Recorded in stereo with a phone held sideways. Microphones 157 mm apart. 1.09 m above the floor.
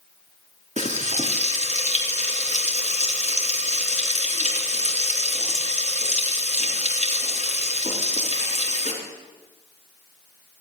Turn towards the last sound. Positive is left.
turn(degrees=-55)  # may be behind; listen again after turning